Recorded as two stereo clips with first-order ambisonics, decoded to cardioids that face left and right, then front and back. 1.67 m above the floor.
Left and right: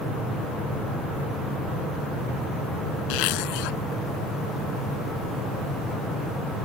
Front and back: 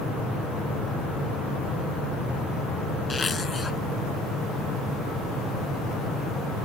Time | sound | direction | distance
3.1 | a zipper | 80° left | ?